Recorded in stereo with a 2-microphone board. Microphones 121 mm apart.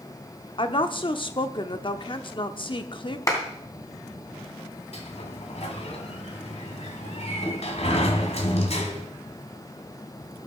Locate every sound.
0.6 s a woman speaking: 45° left (ahead or behind), 0.9 m
3.3 s a clap: 25° left (ahead or behind), 3 m
4.9 s a sliding door: 60° left (ahead or behind), 1.8 m